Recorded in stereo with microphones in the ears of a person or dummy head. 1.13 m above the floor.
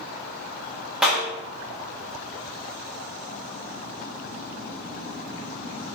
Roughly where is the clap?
Centre.